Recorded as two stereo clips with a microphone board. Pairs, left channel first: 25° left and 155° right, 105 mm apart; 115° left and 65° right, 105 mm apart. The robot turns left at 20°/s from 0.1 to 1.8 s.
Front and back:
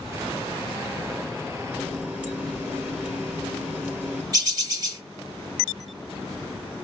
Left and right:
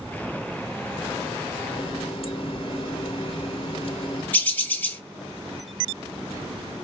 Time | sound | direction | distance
1.7 | a running tap | 130° left | 1.1 m
4.3 | a bird | straight behind | 1.4 m